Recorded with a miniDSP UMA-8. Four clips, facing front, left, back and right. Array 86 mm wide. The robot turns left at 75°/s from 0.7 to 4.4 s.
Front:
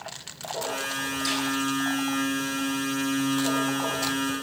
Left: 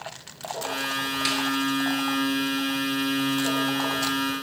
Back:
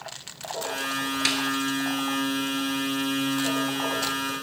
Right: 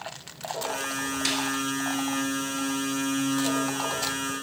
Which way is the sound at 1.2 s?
175° left.